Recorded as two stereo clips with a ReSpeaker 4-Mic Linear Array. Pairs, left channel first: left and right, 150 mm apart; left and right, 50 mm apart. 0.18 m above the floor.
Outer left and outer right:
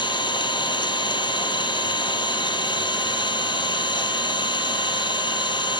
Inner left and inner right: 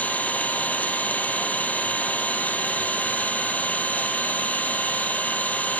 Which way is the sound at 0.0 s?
30° left (ahead or behind).